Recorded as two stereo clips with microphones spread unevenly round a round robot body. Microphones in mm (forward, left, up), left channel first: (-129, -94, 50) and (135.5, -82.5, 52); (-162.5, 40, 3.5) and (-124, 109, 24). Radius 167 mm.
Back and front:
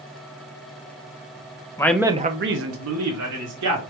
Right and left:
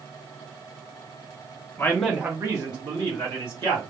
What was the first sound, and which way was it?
A man speaking, 105° right.